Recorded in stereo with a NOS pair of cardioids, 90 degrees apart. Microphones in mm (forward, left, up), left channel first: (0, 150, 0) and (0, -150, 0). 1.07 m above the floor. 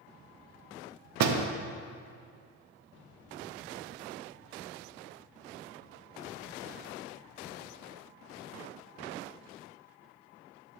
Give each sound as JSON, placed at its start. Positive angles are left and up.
{"t": 1.2, "sound": "a door slam", "azimuth_deg": -65, "distance_m": 0.8}